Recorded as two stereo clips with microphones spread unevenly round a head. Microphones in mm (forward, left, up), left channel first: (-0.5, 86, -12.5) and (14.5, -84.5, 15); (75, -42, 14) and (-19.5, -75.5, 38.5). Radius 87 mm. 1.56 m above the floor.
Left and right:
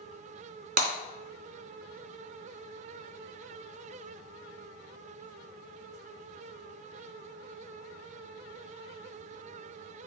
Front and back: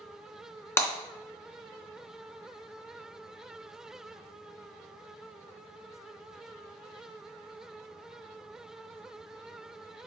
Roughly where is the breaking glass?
Ahead right.